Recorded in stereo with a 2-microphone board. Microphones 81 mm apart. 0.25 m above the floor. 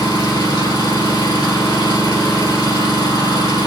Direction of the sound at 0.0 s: 65° left (ahead or behind).